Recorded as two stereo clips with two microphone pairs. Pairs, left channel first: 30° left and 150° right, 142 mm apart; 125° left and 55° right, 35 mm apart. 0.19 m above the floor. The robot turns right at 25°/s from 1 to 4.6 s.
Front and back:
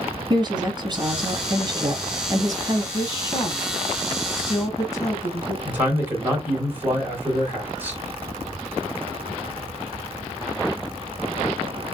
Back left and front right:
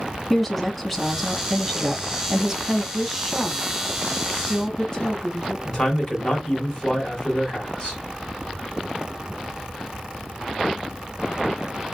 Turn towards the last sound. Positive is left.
turn(degrees=145)